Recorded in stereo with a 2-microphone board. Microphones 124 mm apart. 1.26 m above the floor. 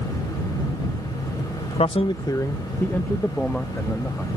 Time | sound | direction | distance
1.8 | a man speaking | 60° left (ahead or behind) | ?